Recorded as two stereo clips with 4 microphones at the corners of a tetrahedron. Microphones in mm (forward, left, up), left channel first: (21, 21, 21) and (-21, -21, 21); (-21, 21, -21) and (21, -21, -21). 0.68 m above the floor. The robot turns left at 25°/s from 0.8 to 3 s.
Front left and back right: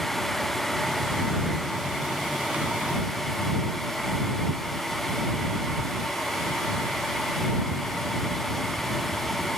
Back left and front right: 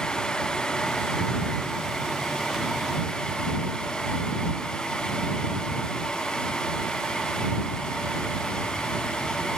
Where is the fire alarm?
No fire alarm in this recording.